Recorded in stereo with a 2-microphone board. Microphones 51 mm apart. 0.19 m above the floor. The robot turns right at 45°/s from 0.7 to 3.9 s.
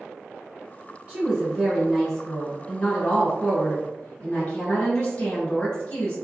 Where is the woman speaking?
15° right (ahead or behind), 1.1 m; by 6.2 s 25° left (ahead or behind), 1.1 m.